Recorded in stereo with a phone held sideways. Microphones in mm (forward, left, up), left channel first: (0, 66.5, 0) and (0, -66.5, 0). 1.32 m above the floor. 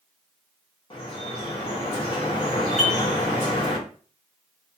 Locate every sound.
0.9 s dripping: 40° left (ahead or behind), 1.0 m
2.8 s dishes clattering: 80° left, 1.4 m